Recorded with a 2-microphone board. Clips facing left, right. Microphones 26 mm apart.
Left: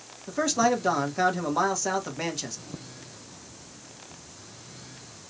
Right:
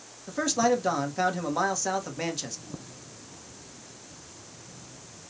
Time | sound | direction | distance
0.3 | a man speaking | 5° left (ahead or behind) | 0.9 m